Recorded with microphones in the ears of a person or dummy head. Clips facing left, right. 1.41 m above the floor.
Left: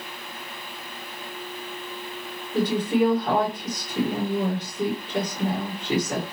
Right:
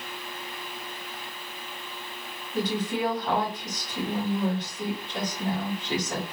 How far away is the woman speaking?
About 2.0 m.